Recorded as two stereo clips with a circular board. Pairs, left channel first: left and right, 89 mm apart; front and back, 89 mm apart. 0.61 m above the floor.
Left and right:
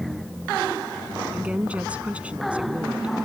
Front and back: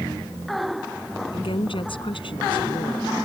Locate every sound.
1.3 s a woman speaking: 15° right